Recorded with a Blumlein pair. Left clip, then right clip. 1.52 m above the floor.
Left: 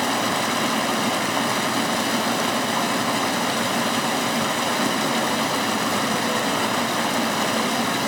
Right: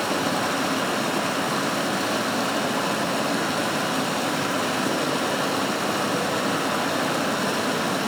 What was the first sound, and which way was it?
Running water, 50° left.